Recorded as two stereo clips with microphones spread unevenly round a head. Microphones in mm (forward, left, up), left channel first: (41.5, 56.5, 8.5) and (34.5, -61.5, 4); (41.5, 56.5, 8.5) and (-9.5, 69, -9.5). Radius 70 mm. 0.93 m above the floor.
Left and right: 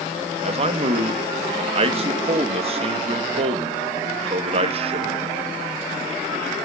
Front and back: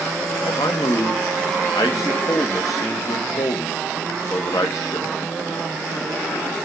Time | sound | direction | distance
0.4 | a man speaking | 70° right | 1.6 m